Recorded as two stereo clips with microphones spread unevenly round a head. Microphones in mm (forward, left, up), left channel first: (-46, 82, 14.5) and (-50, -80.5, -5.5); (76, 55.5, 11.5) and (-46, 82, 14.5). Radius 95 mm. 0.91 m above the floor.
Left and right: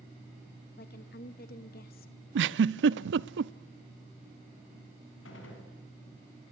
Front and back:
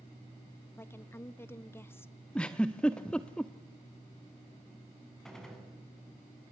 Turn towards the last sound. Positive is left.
turn(degrees=75)